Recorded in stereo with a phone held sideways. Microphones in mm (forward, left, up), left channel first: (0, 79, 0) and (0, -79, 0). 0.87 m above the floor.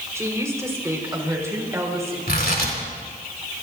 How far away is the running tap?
I don't hear a running tap.